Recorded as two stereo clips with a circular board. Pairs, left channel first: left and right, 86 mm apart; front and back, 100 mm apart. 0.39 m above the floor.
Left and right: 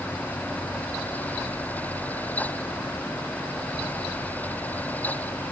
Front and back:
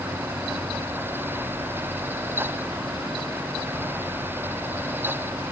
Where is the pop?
I don't hear a pop.